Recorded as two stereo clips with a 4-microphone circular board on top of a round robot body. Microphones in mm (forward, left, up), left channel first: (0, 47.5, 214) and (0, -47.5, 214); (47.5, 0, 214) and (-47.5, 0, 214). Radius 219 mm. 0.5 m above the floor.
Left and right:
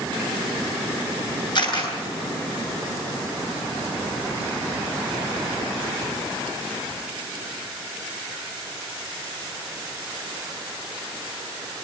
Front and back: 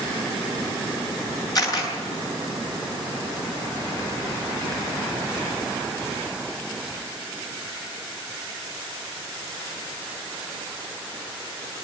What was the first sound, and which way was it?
A camera shutter, 50° left.